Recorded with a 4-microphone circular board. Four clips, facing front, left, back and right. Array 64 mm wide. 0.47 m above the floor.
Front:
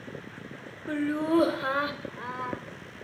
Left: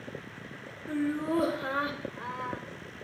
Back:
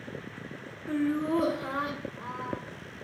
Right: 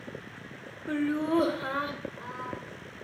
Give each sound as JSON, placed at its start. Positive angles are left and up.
{"t": 0.9, "sound": "laughter", "azimuth_deg": -40, "distance_m": 1.3}